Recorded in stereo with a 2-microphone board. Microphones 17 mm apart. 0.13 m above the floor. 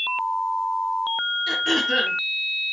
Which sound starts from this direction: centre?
Throat clearing, at 1.5 s.